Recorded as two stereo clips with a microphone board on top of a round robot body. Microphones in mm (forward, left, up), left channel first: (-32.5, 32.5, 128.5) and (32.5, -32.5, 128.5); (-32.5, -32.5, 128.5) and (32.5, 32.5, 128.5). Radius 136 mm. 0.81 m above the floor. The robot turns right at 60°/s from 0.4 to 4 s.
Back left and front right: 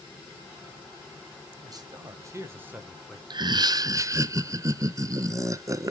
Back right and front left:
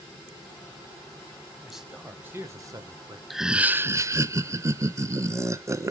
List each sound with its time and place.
1.6 s a man speaking: 50° right, 1.2 m; by 3.2 s 45° left, 1.2 m
3.3 s laughter: 45° right, 0.6 m; by 5.9 s 5° right, 0.6 m